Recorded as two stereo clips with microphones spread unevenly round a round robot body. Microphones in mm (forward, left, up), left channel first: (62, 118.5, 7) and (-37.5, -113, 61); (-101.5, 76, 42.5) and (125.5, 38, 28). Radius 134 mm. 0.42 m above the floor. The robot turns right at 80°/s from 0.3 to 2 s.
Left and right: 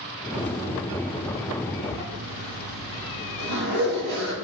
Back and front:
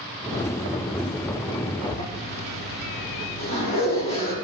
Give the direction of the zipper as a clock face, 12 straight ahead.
5 o'clock.